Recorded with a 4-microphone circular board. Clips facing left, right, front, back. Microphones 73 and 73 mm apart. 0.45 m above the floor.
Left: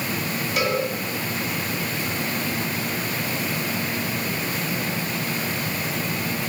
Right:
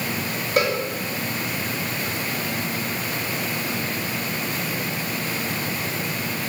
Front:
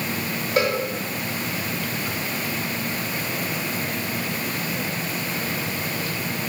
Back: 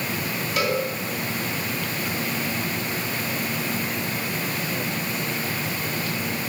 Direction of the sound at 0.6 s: 50° right.